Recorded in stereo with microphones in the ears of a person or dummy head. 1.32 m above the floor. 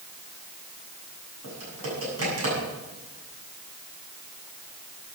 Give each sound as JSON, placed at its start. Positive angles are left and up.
{"t": 1.4, "sound": "typing on a keyboard", "side_deg": -85, "distance_m": 8.0}